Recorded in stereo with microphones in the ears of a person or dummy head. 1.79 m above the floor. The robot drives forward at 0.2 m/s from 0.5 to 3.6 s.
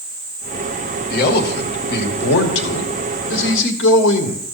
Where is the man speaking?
55° left (ahead or behind), 2 m; by 4.5 s 70° left (ahead or behind), 1.8 m.